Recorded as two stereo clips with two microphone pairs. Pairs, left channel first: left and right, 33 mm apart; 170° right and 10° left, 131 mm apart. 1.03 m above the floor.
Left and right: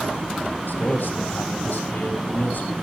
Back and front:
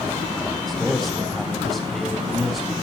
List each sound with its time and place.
0.7 s a man speaking: 100° left, 3.5 m